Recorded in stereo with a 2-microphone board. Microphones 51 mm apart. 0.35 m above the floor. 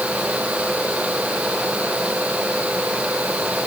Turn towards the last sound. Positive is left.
No sound to turn to.